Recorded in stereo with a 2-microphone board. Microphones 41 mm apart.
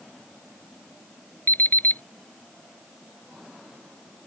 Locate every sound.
1.5 s an alarm clock: 50° left (ahead or behind)